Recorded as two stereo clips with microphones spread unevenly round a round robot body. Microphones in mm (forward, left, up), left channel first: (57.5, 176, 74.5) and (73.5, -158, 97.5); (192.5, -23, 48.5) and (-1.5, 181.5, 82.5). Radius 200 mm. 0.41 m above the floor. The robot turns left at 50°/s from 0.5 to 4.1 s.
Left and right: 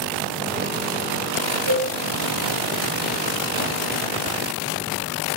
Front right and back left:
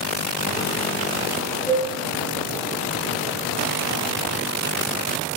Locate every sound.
1.7 s a cowbell: 120° right, 3.5 m; by 1.9 s 130° right, 3.5 m